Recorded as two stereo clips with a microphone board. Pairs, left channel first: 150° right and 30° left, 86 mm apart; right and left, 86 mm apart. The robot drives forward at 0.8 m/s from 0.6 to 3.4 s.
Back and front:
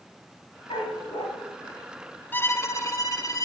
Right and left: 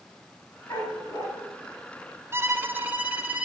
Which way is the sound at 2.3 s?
145° left.